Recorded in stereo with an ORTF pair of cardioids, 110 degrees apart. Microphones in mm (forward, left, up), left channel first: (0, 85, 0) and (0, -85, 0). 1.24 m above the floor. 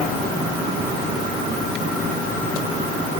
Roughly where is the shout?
I don't hear a shout.